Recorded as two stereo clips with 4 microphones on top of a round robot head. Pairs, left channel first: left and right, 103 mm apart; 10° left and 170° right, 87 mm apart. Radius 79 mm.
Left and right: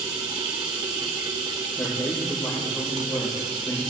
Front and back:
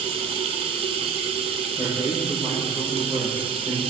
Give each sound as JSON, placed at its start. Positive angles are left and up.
{"t": 0.0, "sound": "running water", "azimuth_deg": -145, "distance_m": 1.5}
{"t": 1.8, "sound": "a man speaking", "azimuth_deg": 150, "distance_m": 6.0}